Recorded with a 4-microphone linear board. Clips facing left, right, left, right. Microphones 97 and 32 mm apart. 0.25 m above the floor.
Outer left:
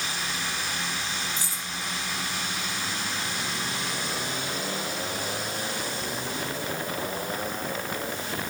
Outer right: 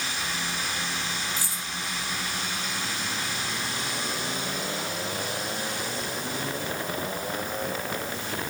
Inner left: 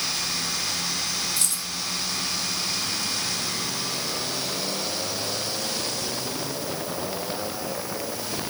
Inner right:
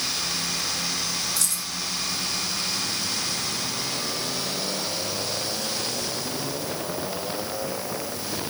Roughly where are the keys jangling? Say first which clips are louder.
Outer right 1 dB, even; left.